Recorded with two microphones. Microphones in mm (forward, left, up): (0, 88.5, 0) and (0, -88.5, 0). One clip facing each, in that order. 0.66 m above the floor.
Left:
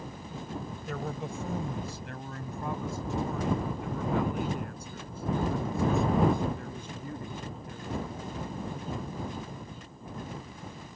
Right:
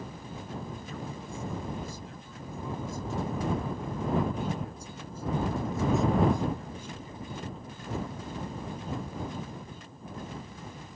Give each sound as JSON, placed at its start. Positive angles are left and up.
{"t": 0.9, "sound": "a man speaking", "side_deg": 75}